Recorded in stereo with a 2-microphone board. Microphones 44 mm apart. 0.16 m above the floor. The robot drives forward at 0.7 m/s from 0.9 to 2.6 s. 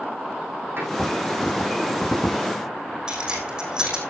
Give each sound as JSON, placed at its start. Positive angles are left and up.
{"t": 0.8, "sound": "a door slam", "side_deg": -60, "distance_m": 8.0}
{"t": 3.1, "sound": "keys jangling", "side_deg": -20, "distance_m": 5.5}